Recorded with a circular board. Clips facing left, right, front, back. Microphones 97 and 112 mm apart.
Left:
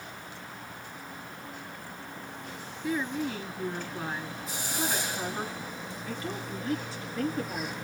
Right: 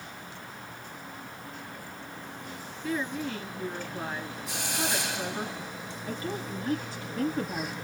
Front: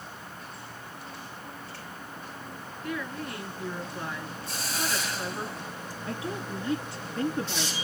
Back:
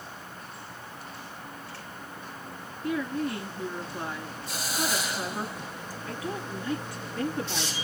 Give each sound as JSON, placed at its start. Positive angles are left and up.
{"t": 2.8, "sound": "a woman speaking", "azimuth_deg": 150, "distance_m": 1.5}
{"t": 4.5, "sound": "a hiss", "azimuth_deg": -100, "distance_m": 2.0}
{"t": 6.1, "sound": "a woman speaking", "azimuth_deg": -50, "distance_m": 2.0}